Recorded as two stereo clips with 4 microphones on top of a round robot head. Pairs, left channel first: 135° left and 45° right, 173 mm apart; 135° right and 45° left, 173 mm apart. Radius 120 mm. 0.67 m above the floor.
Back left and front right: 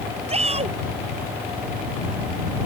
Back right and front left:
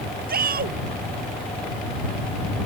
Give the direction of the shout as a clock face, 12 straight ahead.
12 o'clock.